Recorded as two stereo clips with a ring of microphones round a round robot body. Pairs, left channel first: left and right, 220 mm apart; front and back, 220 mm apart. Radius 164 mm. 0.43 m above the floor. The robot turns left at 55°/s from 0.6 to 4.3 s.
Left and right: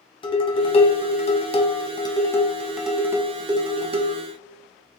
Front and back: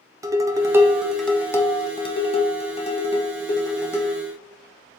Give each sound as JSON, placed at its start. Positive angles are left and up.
{"t": 0.2, "sound": "dishes clattering", "azimuth_deg": 120, "distance_m": 0.7}